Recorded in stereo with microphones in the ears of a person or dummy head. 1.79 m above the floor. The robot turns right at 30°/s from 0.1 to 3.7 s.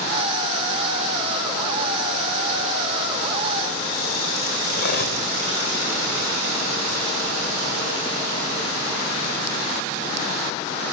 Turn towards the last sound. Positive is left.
turn(degrees=55)  # may be behind; listen again after turning